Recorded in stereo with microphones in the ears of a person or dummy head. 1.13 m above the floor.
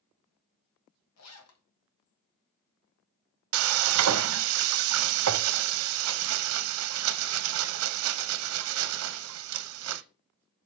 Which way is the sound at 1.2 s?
80° left.